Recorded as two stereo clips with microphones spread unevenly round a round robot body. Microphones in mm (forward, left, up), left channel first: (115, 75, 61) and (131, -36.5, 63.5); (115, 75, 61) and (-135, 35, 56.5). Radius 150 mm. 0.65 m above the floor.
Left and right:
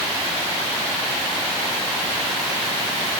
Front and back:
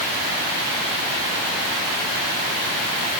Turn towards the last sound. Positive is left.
No sound to turn to.